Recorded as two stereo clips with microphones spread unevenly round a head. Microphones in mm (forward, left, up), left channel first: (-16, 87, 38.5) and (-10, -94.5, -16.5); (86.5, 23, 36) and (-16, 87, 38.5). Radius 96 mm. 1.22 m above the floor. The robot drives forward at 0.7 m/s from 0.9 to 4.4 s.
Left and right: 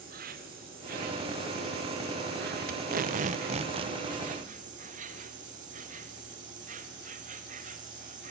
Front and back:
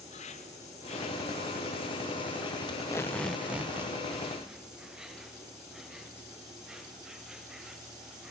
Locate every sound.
0.0 s an insect: 60° right, 2 m; by 8.3 s 125° right, 2.5 m
2.7 s tape being pulled: 80° right, 0.7 m; by 4.0 s 140° right, 1.1 m